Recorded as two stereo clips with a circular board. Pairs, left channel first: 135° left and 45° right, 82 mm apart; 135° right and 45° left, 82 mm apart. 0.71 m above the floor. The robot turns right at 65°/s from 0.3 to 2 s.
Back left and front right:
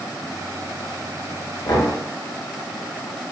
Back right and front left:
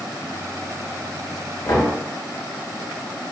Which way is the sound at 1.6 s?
170° left.